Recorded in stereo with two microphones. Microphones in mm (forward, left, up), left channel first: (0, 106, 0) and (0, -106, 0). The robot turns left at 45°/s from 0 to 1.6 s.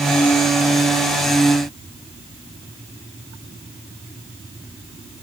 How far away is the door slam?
No door slam in this recording.